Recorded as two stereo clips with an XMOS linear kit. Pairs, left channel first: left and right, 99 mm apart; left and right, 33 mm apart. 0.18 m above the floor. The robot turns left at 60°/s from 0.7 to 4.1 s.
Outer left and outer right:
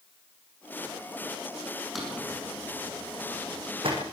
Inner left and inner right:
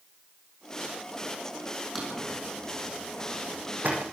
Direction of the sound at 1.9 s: Centre (ahead or behind).